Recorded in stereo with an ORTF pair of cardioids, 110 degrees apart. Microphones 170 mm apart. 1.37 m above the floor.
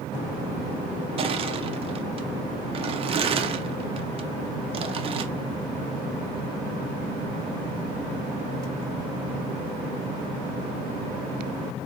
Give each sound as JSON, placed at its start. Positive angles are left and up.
{"t": 1.2, "sound": "crushing", "azimuth_deg": -35, "distance_m": 0.5}